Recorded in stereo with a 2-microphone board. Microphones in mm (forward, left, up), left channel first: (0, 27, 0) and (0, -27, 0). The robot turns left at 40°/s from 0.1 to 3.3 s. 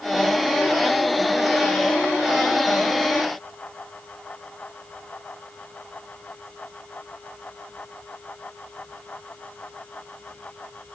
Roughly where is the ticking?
I don't hear ticking.